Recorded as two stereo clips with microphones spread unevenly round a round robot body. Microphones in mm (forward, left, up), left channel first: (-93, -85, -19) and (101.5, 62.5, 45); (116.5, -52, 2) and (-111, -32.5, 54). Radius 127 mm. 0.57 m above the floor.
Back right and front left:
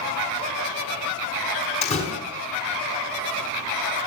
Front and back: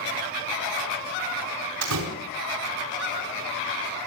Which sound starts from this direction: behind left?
A door slam, at 1.8 s.